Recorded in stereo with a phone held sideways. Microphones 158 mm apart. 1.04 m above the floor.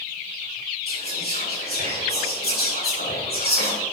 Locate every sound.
0.9 s whispering: 80° left, 4.5 m